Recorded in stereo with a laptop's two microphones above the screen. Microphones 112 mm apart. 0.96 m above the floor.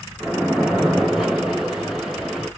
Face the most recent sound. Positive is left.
turn(degrees=-5)  # may be behind; listen again after turning